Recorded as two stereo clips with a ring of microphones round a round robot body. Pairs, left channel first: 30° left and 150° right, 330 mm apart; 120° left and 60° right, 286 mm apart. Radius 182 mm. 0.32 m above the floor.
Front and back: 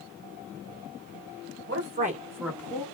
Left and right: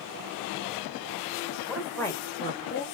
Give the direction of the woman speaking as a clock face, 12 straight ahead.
5 o'clock.